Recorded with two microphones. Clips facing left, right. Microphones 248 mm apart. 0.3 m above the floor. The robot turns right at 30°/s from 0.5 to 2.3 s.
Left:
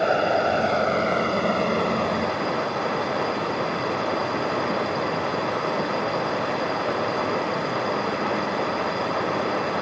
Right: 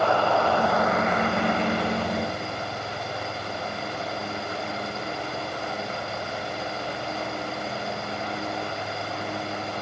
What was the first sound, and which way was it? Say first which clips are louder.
Running water: left 1 dB; 20° left.